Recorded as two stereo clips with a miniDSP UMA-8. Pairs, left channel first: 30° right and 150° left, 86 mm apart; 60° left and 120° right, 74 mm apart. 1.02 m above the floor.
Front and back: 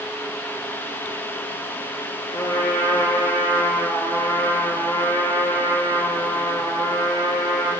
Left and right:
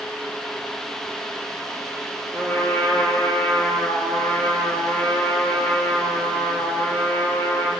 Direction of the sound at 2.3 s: 5° right.